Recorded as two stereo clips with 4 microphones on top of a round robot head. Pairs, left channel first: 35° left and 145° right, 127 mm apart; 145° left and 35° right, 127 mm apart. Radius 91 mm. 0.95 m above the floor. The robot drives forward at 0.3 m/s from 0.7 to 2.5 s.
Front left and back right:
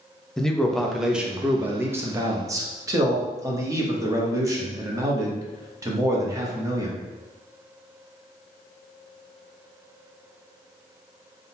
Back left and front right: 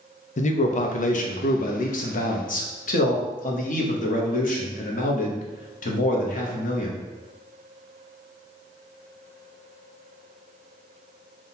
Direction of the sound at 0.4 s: 125° left.